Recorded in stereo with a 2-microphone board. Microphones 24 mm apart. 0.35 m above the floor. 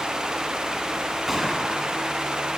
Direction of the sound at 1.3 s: 5° right (ahead or behind).